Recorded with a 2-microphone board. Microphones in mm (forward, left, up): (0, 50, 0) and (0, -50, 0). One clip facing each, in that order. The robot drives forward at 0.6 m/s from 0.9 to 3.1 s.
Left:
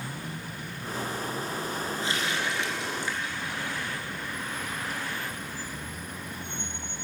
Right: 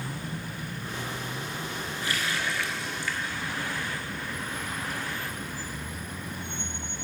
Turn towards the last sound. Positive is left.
turn(degrees=20)  # may be behind; listen again after turning